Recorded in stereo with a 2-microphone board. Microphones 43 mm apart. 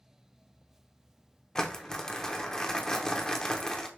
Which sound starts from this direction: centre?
Crumpling, at 1.6 s.